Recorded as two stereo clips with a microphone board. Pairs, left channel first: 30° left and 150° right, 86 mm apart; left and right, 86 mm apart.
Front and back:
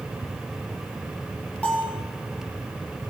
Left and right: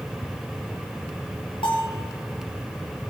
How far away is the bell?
About 7.5 m.